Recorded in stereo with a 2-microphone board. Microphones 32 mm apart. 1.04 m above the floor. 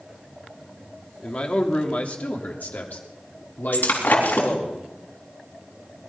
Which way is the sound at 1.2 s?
35° left (ahead or behind).